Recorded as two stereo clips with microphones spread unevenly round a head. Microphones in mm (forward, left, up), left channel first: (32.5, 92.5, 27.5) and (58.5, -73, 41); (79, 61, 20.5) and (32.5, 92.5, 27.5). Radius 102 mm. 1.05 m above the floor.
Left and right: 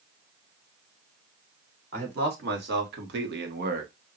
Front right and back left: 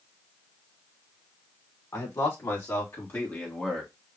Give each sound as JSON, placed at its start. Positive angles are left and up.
{"t": 1.9, "sound": "a man speaking", "azimuth_deg": -50, "distance_m": 2.5}